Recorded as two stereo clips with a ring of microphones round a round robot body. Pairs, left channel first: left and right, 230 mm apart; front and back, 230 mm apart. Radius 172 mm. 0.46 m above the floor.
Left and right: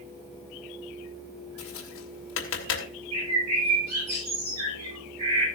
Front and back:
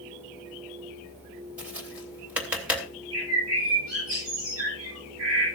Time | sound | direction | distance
1.6 | tapping | 95° left | 3 m
3.1 | a bird | 130° right | 7 m